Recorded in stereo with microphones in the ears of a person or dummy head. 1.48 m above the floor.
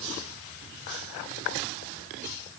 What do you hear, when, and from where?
Only background noise.